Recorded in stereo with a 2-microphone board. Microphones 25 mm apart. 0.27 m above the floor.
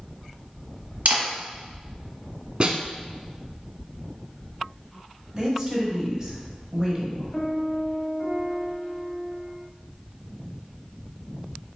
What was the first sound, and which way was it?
A camera shutter, 60° right (ahead or behind).